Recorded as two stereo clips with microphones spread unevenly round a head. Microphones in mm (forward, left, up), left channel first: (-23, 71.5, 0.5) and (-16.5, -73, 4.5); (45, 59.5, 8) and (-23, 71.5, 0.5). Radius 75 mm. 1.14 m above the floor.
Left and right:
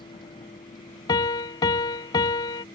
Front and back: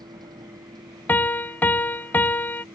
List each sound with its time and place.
0.0 s a vehicle: 150° left; by 2.8 s 155° left
1.1 s a piano: 35° left